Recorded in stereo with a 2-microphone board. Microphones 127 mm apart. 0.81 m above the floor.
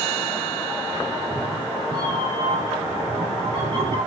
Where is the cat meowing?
40° right (ahead or behind), 8.5 m; by 4.0 s 50° right (ahead or behind), 8.5 m.